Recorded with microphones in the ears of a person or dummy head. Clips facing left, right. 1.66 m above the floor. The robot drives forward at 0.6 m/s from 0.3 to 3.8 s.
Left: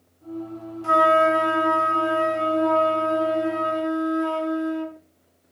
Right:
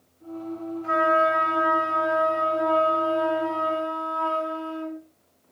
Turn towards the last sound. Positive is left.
turn(degrees=20)  # may be behind; listen again after turning